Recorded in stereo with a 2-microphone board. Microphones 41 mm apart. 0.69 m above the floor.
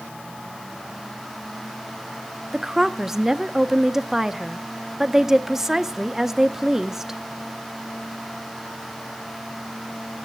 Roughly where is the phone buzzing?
I don't hear a phone buzzing.